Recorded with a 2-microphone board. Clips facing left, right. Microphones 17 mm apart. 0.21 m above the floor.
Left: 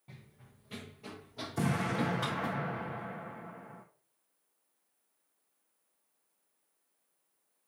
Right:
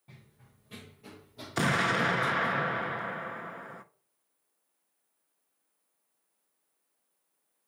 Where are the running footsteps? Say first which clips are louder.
Left 1 dB; 5° left (ahead or behind), 1.5 m; by 2.5 s 60° left (ahead or behind), 1.2 m.